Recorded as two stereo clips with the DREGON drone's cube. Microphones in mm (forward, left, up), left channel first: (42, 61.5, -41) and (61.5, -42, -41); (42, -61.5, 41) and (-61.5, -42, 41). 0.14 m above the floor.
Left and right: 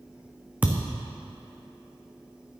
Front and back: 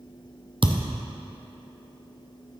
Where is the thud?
155° right, 1.1 m.